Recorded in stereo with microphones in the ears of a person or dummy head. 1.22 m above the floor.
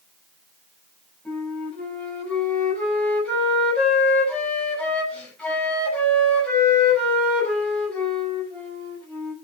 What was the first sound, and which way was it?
A flute, 10° left (ahead or behind).